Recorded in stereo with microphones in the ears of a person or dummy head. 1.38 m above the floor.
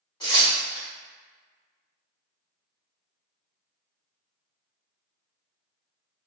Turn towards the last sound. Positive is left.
turn(degrees=15)  # may be behind; listen again after turning